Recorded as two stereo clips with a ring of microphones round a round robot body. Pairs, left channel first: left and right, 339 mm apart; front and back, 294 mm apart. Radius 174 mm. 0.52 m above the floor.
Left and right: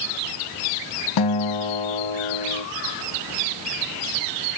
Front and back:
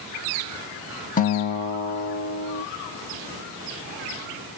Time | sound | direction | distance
1.2 | a guitar | 65° left | 0.9 m